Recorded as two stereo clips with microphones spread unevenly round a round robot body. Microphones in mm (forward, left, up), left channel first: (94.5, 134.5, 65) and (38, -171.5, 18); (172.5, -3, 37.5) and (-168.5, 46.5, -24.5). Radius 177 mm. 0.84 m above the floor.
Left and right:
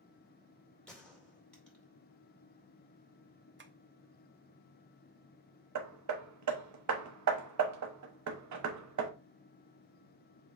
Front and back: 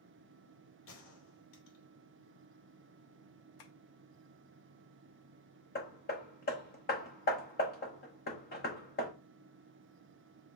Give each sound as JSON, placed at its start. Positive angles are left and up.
{"t": 0.9, "sound": "a gunshot", "azimuth_deg": -10, "distance_m": 2.0}
{"t": 3.6, "sound": "tapping", "azimuth_deg": -45, "distance_m": 0.8}
{"t": 5.8, "sound": "hammering", "azimuth_deg": -75, "distance_m": 1.0}